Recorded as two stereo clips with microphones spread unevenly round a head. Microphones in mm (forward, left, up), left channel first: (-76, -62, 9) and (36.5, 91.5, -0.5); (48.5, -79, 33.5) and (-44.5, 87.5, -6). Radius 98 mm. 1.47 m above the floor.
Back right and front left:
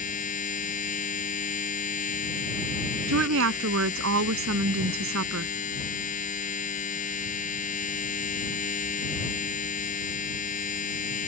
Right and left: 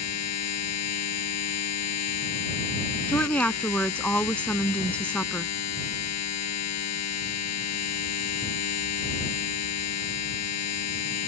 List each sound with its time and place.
0.0 s a machine running: 70° right
3.1 s a woman speaking: 20° left